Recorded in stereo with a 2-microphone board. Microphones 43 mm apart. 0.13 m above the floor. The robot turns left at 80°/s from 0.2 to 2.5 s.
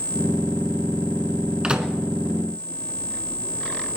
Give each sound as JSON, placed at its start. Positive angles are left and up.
{"t": 1.6, "sound": "a microwave", "side_deg": -20, "distance_m": 1.1}